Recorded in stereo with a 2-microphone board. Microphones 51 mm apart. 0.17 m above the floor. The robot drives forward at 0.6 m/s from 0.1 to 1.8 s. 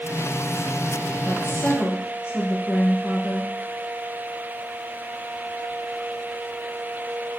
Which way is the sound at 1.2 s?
60° left (ahead or behind).